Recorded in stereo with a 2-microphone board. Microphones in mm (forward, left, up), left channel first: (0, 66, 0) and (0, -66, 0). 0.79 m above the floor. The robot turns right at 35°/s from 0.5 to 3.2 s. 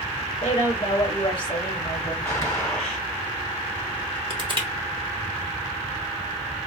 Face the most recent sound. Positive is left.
turn(degrees=-40)  # may be behind; listen again after turning